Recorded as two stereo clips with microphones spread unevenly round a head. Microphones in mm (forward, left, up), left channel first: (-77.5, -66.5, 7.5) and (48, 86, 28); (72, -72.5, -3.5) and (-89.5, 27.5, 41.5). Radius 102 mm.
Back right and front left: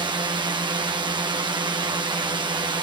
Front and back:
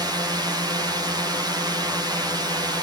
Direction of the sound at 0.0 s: 80° left.